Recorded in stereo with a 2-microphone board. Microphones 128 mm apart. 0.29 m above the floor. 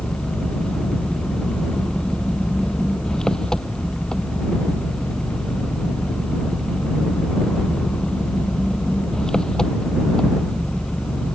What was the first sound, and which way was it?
An engine running, 5° left (ahead or behind).